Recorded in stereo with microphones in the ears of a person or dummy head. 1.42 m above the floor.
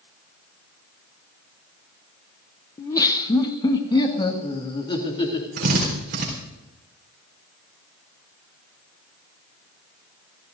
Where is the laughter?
15° left (ahead or behind), 0.9 m; by 5.5 s 25° left (ahead or behind), 3 m.